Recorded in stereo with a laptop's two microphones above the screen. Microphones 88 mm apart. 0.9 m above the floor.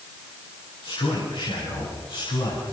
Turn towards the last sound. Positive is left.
turn(degrees=85)